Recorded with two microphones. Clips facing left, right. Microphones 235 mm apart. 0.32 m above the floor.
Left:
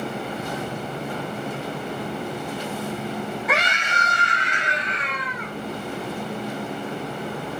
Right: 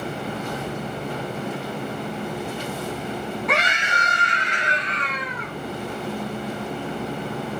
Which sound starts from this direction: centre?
A scream, at 3.5 s.